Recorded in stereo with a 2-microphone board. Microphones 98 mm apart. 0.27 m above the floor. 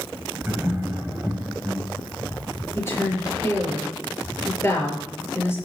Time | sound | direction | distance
0.4 | laughter | 25° right (ahead or behind) | 1.8 m
2.8 | a woman speaking | 25° left (ahead or behind) | 5.5 m